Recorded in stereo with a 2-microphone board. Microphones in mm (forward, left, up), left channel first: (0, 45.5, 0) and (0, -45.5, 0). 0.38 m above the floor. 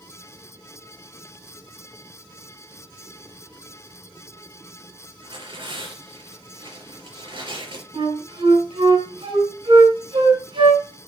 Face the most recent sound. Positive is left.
turn(degrees=-70)  # may be behind; listen again after turning